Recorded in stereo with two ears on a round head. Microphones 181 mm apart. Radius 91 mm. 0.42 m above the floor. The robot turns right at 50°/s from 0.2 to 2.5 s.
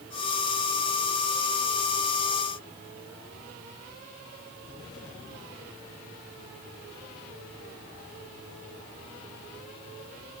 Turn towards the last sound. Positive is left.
No sound to turn to.